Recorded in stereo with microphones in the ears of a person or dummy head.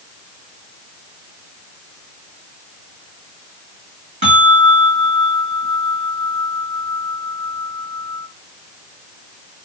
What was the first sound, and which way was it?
A bell, 30° right (ahead or behind).